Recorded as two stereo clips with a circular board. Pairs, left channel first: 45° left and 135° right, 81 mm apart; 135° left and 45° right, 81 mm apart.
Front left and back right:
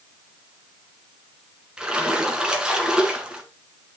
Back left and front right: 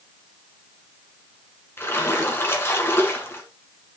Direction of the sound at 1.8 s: 155° left.